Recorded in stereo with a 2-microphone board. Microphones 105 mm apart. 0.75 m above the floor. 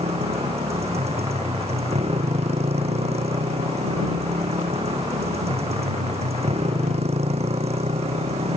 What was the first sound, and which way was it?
A motorcycle, 90° right.